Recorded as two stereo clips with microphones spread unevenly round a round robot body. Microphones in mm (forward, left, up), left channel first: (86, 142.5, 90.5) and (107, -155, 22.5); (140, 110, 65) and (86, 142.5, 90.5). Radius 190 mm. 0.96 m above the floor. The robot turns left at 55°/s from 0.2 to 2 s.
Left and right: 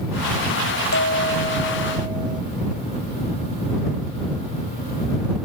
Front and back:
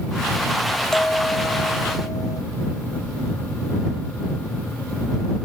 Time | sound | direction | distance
0.9 | a bell | 50° left | ?